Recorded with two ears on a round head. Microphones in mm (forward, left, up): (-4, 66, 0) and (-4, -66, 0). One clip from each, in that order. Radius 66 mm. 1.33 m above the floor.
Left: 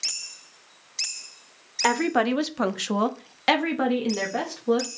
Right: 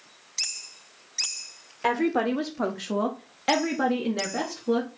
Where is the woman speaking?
35° left (ahead or behind), 0.8 m; by 4.9 s 20° left (ahead or behind), 1.3 m.